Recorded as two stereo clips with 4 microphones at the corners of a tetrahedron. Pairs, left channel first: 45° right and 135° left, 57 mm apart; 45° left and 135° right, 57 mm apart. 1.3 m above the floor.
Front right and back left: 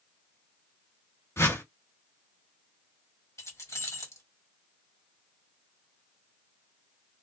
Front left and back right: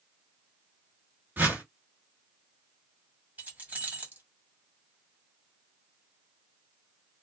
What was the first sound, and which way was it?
A whoosh, 80° right.